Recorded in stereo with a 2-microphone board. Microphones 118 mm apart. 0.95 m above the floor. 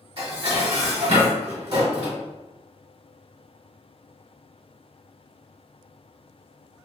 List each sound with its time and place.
0.2 s dishes clattering: 50° right (ahead or behind), 1.0 m